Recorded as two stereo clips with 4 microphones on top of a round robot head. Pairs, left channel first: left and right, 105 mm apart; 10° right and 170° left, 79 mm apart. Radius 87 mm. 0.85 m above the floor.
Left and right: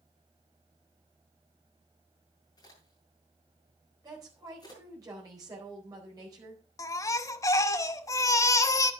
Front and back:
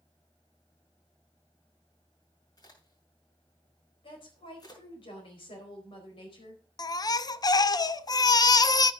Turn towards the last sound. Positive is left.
turn(degrees=30)